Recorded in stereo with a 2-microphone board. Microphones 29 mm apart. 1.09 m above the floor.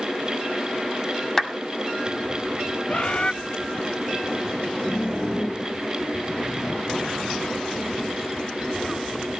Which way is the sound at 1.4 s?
15° left (ahead or behind).